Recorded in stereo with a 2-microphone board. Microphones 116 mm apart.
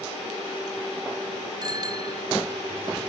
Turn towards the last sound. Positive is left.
turn(degrees=-35)  # may be behind; listen again after turning